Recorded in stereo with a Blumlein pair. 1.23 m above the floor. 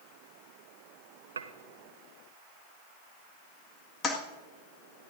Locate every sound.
1.4 s dishes clattering: 70° right, 0.9 m
4.0 s a toilet flushing: 20° left, 1.7 m